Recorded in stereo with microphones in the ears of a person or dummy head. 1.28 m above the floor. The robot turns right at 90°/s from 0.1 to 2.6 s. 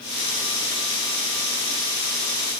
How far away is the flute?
I don't hear a flute.